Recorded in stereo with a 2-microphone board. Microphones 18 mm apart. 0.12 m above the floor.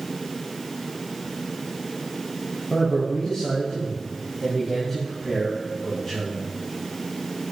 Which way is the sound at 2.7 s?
20° left (ahead or behind).